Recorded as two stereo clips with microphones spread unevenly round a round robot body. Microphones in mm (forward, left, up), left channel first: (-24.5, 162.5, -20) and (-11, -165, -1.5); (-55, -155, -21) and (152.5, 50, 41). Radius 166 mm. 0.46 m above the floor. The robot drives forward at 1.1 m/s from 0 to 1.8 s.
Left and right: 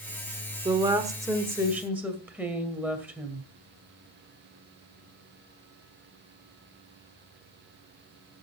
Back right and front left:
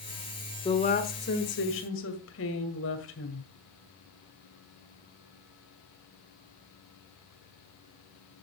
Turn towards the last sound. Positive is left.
turn(degrees=-175)